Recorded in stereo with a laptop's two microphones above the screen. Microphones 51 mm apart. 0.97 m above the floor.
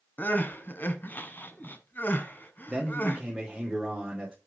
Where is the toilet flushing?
I don't hear a toilet flushing.